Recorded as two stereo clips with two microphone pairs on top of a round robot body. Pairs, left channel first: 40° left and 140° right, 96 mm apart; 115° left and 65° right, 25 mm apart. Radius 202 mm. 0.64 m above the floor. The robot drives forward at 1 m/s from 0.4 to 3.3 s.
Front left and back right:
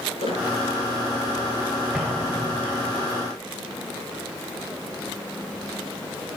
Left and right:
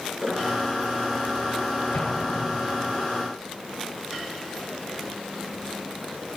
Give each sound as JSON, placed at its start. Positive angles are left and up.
{"t": 0.2, "sound": "a squeak", "azimuth_deg": 25, "distance_m": 4.5}
{"t": 1.9, "sound": "an explosion", "azimuth_deg": 135, "distance_m": 1.9}